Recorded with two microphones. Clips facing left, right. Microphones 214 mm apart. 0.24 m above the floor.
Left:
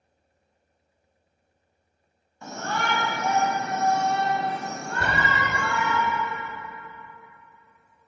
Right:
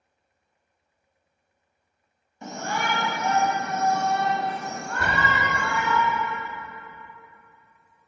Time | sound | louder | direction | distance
2.4 | a shout | right 1 dB | 20° right (ahead or behind) | 1.3 m
5.0 | a door slam | even | 25° left (ahead or behind) | 2 m